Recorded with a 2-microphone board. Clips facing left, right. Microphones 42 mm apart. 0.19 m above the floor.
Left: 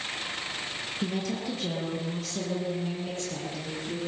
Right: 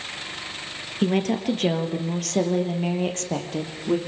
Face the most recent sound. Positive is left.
turn(degrees=-75)  # may be behind; listen again after turning